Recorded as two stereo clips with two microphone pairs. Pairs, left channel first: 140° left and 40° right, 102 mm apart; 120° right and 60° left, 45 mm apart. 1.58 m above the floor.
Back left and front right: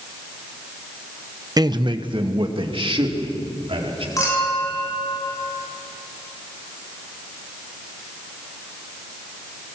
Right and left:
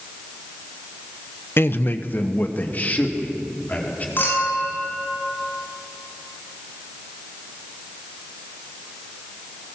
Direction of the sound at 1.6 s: 90° right.